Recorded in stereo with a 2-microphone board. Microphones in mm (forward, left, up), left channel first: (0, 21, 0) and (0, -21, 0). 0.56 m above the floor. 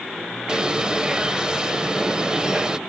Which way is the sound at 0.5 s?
20° right (ahead or behind).